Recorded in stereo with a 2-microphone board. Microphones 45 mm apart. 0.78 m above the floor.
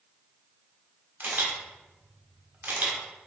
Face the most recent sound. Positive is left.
turn(degrees=-50)  # may be behind; listen again after turning